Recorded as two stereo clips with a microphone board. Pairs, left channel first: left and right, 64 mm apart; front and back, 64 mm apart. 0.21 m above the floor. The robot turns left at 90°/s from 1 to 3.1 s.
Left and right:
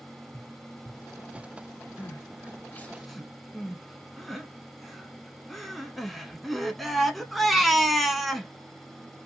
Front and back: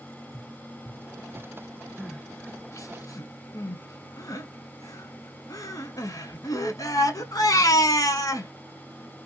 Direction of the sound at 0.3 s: 10° left.